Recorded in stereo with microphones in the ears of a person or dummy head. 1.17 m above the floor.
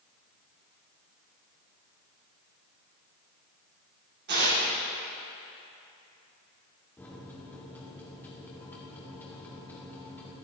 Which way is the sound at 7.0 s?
10° left (ahead or behind).